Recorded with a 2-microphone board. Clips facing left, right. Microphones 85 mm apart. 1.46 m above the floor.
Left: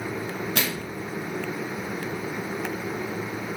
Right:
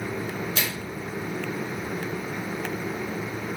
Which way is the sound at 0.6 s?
60° left (ahead or behind).